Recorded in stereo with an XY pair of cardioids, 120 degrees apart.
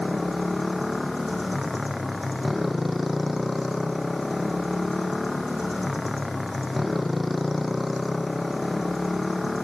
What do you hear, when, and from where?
0.0 s a motorcycle: 10° left